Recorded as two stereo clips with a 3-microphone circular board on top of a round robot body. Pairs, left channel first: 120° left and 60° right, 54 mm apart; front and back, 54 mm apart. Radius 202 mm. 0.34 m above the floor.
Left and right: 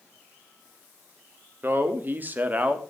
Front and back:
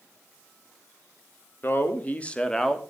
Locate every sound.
1.6 s a man speaking: 30° right, 1.9 m; by 2.8 s 85° right, 1.5 m